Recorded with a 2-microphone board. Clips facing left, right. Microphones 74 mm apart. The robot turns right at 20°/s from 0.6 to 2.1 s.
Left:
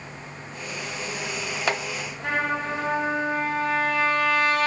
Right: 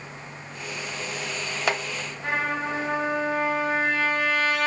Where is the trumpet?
5° left (ahead or behind), 1.5 m.